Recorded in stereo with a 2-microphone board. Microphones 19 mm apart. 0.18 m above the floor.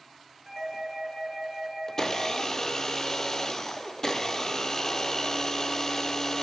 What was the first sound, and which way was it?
A doorbell, 20° right (ahead or behind).